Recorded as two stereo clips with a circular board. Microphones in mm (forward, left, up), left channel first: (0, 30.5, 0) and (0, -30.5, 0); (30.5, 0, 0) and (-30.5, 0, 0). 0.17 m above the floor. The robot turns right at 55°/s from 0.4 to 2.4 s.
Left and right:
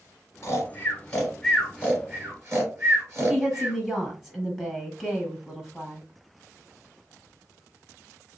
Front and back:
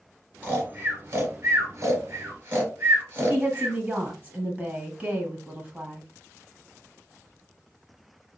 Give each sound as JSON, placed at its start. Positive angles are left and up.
{"t": 0.4, "sound": "snoring", "azimuth_deg": 125, "distance_m": 2.0}
{"t": 3.3, "sound": "a woman speaking", "azimuth_deg": -160, "distance_m": 1.3}